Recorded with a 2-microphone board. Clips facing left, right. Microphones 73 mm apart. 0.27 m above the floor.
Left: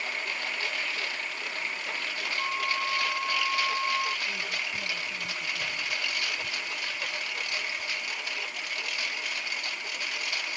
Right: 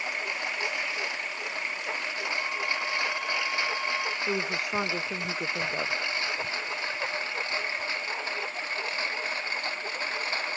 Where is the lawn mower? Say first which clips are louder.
Right 1 dB; 20° right (ahead or behind); by 10.6 s 30° right (ahead or behind).